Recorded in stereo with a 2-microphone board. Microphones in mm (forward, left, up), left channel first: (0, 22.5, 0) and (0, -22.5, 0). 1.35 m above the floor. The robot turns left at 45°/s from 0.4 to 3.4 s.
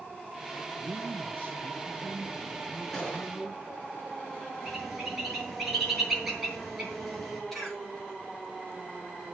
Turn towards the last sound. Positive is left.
turn(degrees=15)  # may be behind; listen again after turning